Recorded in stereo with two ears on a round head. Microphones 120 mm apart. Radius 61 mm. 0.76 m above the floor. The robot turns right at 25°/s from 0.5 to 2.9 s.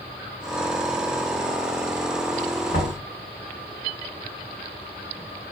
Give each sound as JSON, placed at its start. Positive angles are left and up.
{"t": 2.7, "sound": "knocking", "side_deg": 55, "distance_m": 1.7}